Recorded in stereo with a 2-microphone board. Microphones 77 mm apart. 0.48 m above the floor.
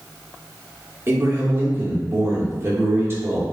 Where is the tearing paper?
I don't hear tearing paper.